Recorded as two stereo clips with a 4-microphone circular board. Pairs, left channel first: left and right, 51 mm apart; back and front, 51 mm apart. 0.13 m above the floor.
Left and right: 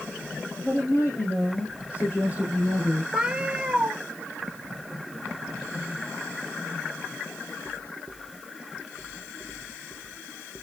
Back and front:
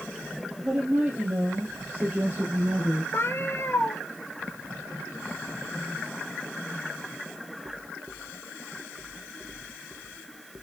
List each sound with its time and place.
0.6 s a woman speaking: 60° left, 4 m; by 3.0 s 45° left, 3 m
3.1 s a cat meowing: 160° right, 1.3 m